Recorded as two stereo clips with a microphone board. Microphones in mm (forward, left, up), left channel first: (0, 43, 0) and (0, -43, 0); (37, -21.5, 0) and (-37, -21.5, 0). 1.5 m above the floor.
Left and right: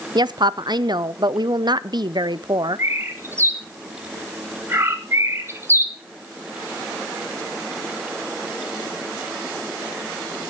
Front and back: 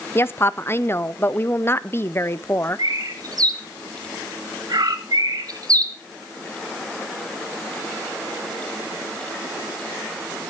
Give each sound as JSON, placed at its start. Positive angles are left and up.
{"t": 0.1, "sound": "a woman speaking", "azimuth_deg": -60, "distance_m": 0.5}
{"t": 2.8, "sound": "a bird", "azimuth_deg": -150, "distance_m": 1.2}